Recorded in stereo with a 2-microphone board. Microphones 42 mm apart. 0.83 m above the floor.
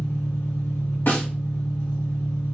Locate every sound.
0.0 s an engine running: 80° left, 1.7 m
1.1 s a snare drum: 55° left (ahead or behind), 2 m